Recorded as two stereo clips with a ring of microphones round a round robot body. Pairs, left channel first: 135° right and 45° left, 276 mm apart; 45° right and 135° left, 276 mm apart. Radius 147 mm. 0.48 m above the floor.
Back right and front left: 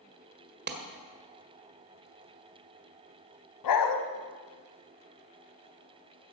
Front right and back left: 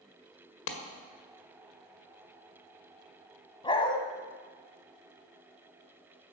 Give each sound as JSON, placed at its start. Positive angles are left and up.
{"t": 0.7, "sound": "a clap", "azimuth_deg": -5, "distance_m": 1.8}
{"t": 3.6, "sound": "a dog barking", "azimuth_deg": -120, "distance_m": 1.3}